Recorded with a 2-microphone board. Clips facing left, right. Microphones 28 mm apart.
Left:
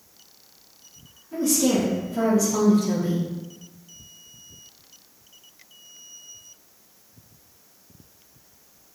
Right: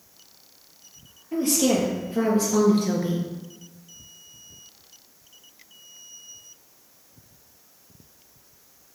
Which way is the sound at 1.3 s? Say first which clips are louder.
Even; 60° right (ahead or behind).